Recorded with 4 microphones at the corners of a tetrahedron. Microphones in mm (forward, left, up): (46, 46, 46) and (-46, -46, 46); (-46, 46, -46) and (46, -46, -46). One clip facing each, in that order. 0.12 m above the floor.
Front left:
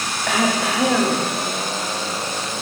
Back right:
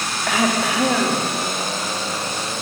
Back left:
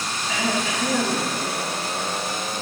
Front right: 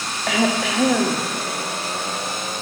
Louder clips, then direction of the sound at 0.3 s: Even, front right 5 dB; 45° right.